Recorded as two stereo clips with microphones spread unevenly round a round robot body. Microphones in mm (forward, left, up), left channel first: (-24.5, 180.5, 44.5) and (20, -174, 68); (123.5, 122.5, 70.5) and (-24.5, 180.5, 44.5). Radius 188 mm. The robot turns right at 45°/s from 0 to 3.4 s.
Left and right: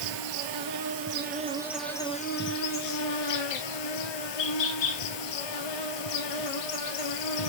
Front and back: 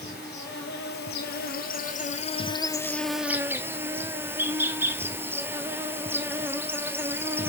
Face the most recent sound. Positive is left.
turn(degrees=80)